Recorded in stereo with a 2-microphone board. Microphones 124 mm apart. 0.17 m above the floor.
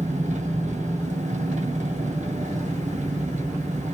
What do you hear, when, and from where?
0.0 s an engine running: 80° right, 1.8 m